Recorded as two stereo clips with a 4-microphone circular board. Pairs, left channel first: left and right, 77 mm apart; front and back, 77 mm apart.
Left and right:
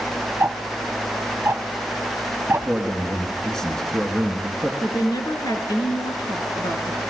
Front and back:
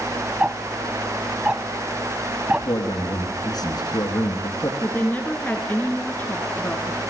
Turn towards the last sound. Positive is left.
turn(degrees=70)